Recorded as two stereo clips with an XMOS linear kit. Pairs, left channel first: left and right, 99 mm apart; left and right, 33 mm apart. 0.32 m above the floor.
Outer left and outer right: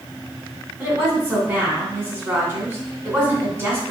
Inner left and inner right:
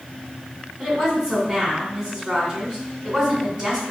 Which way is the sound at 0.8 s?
20° right (ahead or behind).